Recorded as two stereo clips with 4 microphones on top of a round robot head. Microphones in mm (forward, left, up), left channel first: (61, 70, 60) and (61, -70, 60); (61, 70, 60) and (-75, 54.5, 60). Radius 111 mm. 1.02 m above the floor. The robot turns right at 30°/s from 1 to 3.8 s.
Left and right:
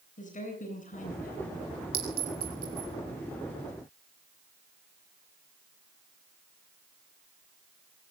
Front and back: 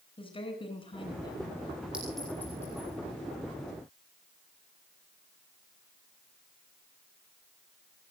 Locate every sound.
0.2 s a woman speaking: 60° left, 9.5 m; by 1.6 s 75° left, 9.5 m
1.9 s a clink: 90° right, 5.5 m; by 2.9 s 60° right, 5.5 m